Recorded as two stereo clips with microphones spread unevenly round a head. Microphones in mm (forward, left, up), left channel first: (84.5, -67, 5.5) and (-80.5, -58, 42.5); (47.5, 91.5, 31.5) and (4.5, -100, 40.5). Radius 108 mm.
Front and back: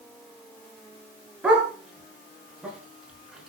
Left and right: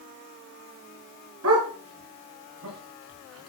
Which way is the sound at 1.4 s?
100° right.